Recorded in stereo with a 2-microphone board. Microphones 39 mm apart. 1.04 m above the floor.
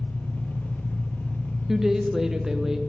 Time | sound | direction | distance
0.0 | an engine running | 60° left (ahead or behind) | 0.7 m
1.7 | a woman speaking | 10° right (ahead or behind) | 0.6 m